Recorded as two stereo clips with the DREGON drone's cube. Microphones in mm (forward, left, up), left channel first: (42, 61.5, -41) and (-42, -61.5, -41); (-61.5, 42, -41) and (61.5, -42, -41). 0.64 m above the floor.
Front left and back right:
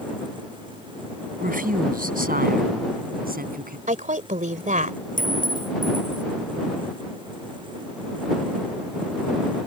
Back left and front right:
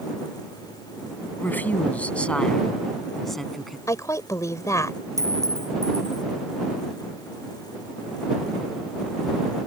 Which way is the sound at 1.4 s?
135° right.